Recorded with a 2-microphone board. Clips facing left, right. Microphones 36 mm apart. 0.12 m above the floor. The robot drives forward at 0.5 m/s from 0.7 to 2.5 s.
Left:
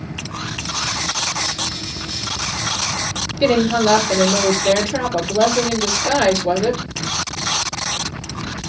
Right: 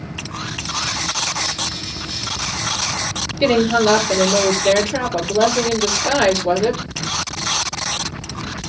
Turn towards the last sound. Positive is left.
turn(degrees=-5)  # may be behind; listen again after turning